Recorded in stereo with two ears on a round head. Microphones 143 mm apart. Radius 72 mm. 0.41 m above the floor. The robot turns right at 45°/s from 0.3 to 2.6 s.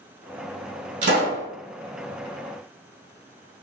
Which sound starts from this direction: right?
A pop, at 1.0 s.